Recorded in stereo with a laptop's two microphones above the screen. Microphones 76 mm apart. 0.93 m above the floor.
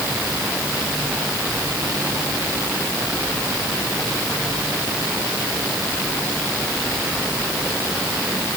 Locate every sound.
Only background noise.